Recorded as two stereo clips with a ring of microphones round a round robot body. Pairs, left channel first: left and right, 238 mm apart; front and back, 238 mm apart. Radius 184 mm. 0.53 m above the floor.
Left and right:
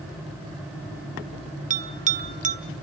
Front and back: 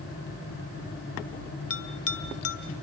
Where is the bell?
30° right, 1.5 m.